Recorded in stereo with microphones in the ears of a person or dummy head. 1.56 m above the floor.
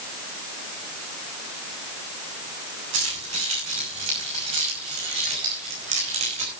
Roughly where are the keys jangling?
Right.